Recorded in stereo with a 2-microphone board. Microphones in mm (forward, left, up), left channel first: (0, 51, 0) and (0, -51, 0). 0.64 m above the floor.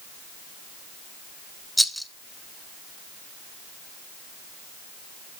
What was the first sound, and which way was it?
A rattle, centre (ahead or behind).